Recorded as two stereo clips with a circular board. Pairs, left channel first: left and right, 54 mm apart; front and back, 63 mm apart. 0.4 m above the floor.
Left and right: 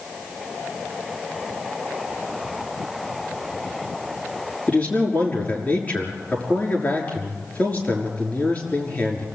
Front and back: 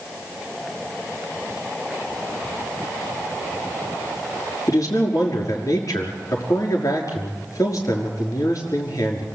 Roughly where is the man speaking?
Ahead left.